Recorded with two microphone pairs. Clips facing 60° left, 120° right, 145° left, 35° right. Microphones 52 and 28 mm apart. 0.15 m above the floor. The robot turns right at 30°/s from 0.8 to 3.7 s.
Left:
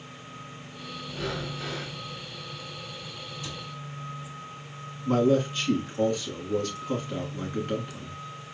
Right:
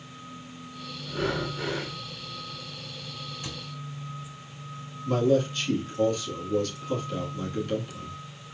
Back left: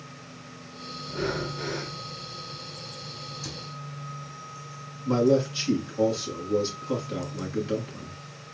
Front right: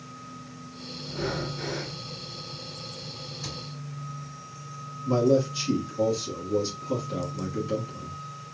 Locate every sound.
1.1 s breathing: 145° right, 1.6 m; by 1.9 s 120° right, 1.6 m
3.4 s a cupboard door: 90° right, 2 m; by 3.6 s 80° right, 2 m
5.0 s a man speaking: 105° left, 2.5 m